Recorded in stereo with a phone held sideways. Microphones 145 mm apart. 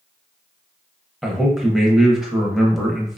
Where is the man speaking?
Centre (ahead or behind), 0.6 m.